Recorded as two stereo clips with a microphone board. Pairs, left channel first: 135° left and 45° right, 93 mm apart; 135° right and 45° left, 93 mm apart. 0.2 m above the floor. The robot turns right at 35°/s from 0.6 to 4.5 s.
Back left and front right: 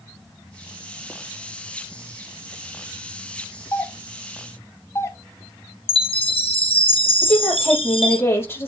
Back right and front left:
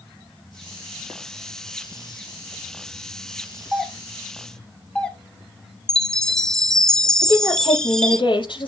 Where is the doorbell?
125° left, 1.6 m; by 5.2 s 150° left, 1.6 m.